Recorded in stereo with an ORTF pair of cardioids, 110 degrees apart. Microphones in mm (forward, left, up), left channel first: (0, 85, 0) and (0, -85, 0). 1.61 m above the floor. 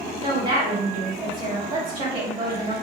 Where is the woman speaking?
30° right, 1.8 m.